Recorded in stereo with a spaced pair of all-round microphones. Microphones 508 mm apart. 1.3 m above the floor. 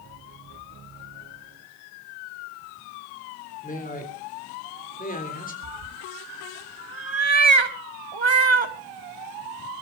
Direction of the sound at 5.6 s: 55° right (ahead or behind).